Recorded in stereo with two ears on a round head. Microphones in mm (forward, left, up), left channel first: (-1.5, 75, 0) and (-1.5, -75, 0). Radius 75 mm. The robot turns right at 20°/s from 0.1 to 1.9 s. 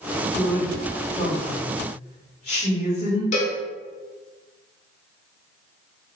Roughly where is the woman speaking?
Centre.